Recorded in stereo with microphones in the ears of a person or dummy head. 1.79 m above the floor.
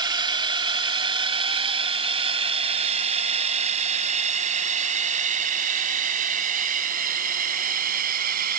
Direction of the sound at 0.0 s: 20° right (ahead or behind).